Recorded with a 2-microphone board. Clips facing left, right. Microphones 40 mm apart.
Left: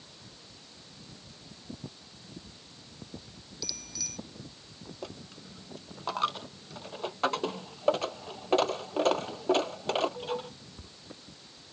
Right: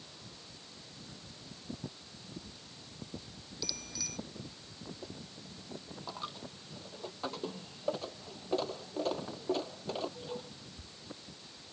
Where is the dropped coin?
80° left.